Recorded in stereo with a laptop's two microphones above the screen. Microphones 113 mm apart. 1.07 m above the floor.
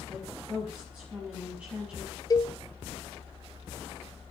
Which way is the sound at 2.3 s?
35° left (ahead or behind).